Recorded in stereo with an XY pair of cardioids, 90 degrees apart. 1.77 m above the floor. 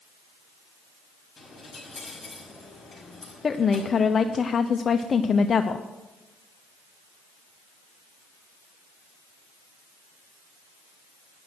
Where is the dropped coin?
20° left, 5.5 m.